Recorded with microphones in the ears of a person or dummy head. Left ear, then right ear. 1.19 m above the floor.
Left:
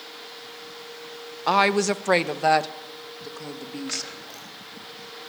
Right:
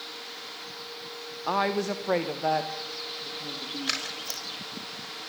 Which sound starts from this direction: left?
A woman speaking, at 1.5 s.